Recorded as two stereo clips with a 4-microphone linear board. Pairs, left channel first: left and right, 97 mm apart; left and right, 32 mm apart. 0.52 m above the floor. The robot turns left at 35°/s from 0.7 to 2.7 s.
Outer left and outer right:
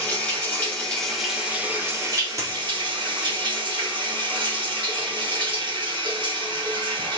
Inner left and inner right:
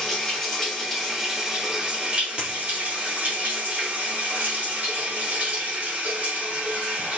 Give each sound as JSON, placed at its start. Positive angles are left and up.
{"t": 0.0, "sound": "running water", "azimuth_deg": 15, "distance_m": 2.5}
{"t": 2.4, "sound": "a dropped coin", "side_deg": -30, "distance_m": 3.5}